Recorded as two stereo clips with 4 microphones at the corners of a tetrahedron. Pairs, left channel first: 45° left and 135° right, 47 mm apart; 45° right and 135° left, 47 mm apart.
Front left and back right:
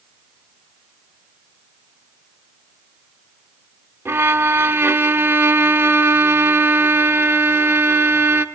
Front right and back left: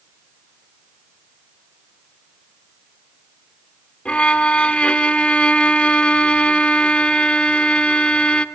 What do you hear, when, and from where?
4.0 s a violin: 105° right, 0.8 m